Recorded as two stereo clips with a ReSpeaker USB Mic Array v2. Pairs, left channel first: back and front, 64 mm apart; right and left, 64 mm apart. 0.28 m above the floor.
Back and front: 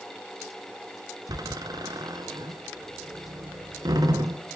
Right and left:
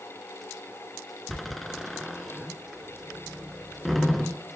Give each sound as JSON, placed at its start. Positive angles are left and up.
{"t": 1.3, "sound": "a door slam", "azimuth_deg": 0, "distance_m": 2.0}